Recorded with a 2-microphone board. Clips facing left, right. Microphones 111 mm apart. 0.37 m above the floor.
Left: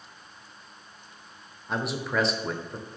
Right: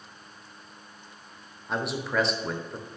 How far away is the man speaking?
About 0.8 m.